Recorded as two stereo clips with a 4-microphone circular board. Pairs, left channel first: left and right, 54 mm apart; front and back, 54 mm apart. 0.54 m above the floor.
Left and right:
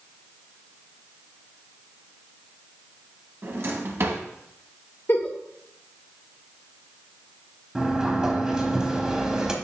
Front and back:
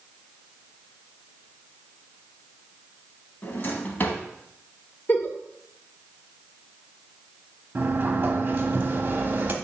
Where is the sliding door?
155° right, 0.9 m.